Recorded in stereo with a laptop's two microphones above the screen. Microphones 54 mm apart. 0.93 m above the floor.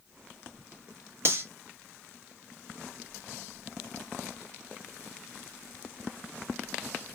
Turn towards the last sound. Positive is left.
turn(degrees=-45)  # may be behind; listen again after turning